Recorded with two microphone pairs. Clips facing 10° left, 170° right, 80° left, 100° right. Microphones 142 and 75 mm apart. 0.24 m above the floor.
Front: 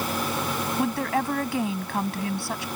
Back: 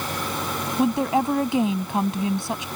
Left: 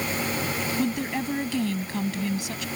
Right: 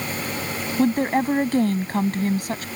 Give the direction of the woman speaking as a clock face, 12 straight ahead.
4 o'clock.